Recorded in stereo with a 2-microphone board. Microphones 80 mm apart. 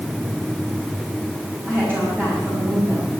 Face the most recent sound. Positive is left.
turn(degrees=-25)  # may be behind; listen again after turning